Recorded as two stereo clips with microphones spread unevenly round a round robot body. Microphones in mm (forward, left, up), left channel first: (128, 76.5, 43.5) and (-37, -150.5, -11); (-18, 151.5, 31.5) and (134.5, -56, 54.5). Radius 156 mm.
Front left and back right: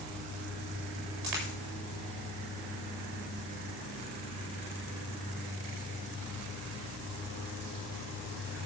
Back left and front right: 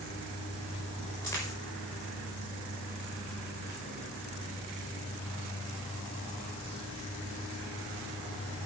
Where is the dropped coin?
155° right, 6 m.